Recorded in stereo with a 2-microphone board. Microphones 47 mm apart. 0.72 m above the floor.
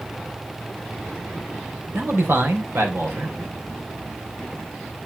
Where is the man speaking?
60° right (ahead or behind), 2.5 m.